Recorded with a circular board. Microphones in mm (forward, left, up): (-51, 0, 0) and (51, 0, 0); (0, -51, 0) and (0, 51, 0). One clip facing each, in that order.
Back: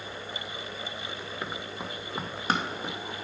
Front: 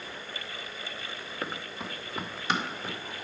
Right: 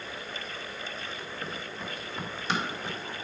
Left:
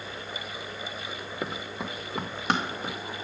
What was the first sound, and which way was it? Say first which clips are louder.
Running footsteps: front 1 dB, left 6 dB; 85° left.